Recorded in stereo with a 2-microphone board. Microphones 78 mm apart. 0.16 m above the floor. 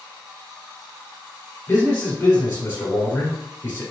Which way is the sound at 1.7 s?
35° left (ahead or behind).